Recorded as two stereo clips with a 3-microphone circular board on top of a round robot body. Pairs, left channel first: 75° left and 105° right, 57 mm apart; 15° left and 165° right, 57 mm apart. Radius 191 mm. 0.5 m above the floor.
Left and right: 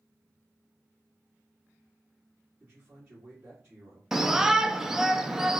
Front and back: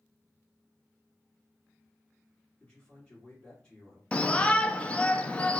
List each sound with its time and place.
2.6 s a man speaking: 60° right, 1.8 m
4.1 s a shout: 30° right, 0.7 m